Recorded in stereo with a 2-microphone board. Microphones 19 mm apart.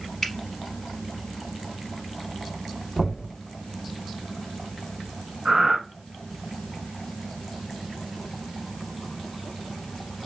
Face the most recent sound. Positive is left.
turn(degrees=-35)  # may be behind; listen again after turning